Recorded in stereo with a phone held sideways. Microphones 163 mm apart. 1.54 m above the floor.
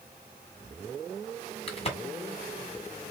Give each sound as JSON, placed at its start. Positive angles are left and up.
{"t": 1.7, "sound": "a crack", "side_deg": 35, "distance_m": 2.0}